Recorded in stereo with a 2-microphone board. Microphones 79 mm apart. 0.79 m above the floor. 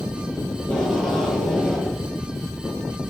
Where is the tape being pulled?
10° left (ahead or behind), 6.5 m.